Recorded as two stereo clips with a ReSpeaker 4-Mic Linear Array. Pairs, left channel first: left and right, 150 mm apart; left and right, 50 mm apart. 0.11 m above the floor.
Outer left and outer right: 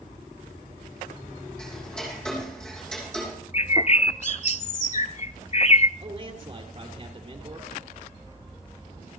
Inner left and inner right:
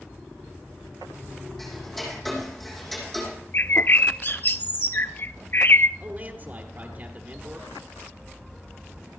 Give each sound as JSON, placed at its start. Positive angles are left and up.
{"t": 1.6, "sound": "ticking", "side_deg": 5, "distance_m": 4.5}
{"t": 3.5, "sound": "a bird", "side_deg": 50, "distance_m": 0.5}
{"t": 6.0, "sound": "a man speaking", "side_deg": -40, "distance_m": 1.9}